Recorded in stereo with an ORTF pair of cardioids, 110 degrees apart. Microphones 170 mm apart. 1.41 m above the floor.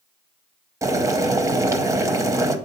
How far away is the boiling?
About 0.8 m.